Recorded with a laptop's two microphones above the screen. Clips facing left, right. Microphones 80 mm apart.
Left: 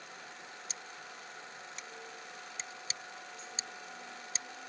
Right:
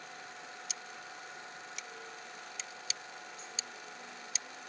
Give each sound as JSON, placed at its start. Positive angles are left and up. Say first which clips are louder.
{"t": 0.7, "sound": "scissors", "louder": "right 1 dB", "side_deg": 35}